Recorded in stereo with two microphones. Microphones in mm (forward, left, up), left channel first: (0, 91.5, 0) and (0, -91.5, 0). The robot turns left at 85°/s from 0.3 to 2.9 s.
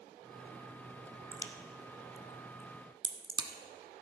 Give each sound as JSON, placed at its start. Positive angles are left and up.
{"t": 1.3, "sound": "a crack", "side_deg": 25, "distance_m": 0.9}